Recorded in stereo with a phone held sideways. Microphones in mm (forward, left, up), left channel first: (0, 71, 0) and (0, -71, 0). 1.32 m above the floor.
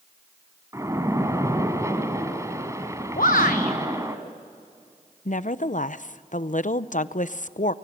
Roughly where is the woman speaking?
Left.